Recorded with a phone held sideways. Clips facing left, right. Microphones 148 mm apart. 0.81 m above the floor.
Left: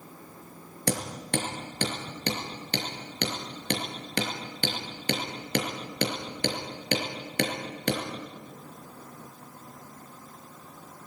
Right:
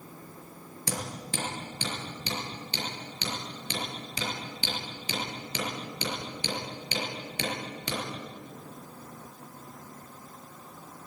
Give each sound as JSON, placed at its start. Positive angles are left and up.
{"t": 0.9, "sound": "hammering", "side_deg": 65, "distance_m": 5.5}